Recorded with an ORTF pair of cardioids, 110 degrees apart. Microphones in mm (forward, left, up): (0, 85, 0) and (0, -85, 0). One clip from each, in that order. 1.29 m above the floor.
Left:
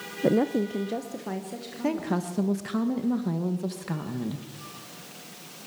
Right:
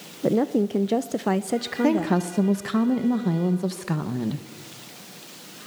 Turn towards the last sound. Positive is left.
turn(degrees=-20)